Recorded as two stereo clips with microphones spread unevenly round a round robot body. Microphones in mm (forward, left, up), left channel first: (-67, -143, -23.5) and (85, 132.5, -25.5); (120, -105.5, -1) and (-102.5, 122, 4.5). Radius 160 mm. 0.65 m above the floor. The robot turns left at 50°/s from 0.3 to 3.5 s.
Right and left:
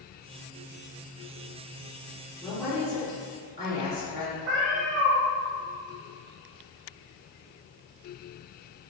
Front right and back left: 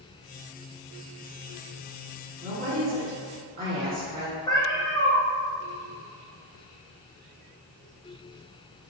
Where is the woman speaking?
150° left, 1.3 m; by 4.4 s 95° left, 1.3 m.